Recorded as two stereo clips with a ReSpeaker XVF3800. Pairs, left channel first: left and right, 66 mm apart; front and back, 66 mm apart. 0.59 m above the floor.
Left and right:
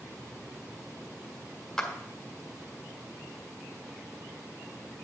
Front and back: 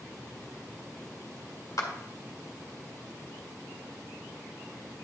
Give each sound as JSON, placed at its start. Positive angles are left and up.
{"t": 1.8, "sound": "a clap", "azimuth_deg": 10, "distance_m": 1.8}